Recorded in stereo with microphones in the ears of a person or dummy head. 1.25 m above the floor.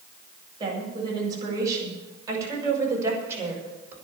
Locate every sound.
0.6 s a woman speaking: 30° right (ahead or behind), 7 m; by 4.0 s 15° right (ahead or behind), 5.5 m